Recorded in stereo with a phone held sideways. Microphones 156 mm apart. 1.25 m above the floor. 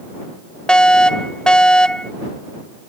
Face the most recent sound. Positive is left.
turn(degrees=5)  # may be behind; listen again after turning